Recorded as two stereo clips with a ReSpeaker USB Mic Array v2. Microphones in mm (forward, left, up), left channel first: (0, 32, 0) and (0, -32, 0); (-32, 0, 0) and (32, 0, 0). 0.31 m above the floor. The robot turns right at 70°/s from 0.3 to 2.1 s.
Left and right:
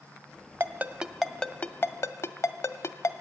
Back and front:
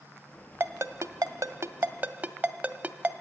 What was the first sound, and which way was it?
A ringtone, 45° right.